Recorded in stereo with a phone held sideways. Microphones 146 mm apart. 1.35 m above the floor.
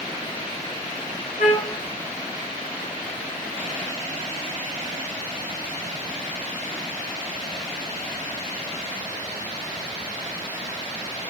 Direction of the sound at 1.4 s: 75° left (ahead or behind).